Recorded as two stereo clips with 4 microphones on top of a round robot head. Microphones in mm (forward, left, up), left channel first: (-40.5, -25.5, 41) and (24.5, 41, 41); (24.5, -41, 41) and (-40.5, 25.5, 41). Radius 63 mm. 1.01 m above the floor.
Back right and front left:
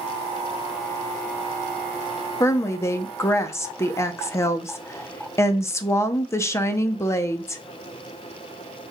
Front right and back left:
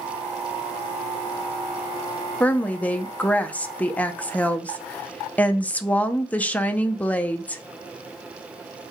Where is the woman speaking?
105° right, 0.6 m.